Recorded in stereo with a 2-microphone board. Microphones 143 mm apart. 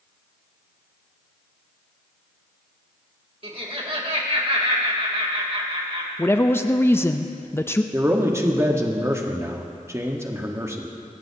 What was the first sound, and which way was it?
Laughter, 45° right (ahead or behind).